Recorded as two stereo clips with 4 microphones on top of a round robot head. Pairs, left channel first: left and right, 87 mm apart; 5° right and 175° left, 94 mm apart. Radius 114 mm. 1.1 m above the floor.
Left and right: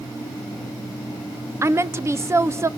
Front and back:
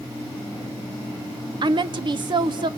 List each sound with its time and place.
1.6 s a woman speaking: 150° right, 0.8 m